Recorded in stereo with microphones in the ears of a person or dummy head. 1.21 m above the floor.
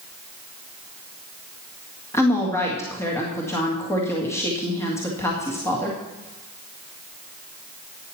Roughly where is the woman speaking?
Centre.